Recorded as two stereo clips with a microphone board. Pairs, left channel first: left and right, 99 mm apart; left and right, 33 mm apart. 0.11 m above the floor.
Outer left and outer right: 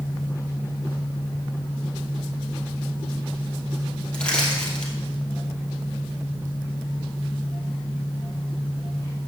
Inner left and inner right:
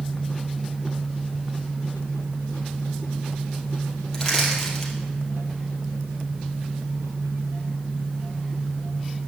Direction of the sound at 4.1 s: 10° left (ahead or behind).